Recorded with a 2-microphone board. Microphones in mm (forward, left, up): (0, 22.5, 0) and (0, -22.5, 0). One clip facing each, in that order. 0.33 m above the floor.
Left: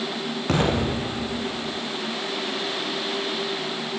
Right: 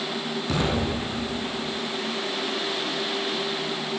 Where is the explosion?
45° left (ahead or behind), 7.5 m.